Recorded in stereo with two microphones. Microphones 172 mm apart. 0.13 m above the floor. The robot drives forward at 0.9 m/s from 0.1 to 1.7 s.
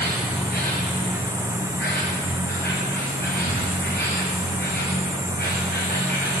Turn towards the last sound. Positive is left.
turn(degrees=70)  # may be behind; listen again after turning